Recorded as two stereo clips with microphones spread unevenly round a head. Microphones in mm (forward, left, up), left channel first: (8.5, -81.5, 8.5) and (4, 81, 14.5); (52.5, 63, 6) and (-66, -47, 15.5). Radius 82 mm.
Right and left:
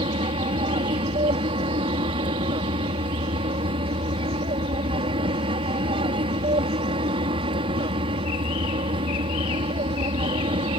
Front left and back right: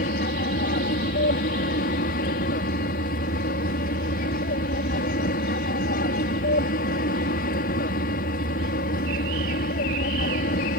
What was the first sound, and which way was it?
An aircraft, 40° left.